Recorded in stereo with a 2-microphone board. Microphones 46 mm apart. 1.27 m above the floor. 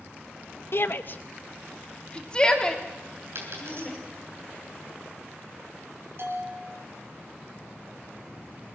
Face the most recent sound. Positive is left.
turn(degrees=-55)  # may be behind; listen again after turning